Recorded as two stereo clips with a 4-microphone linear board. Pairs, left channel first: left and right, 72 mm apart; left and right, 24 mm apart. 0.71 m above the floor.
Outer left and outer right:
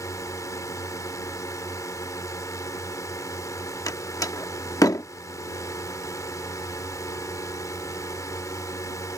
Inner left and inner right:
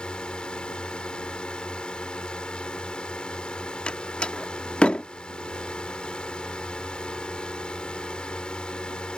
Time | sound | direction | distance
0.0 | a drone | 50° left (ahead or behind) | ?
3.9 | a door slam | 55° left (ahead or behind) | ?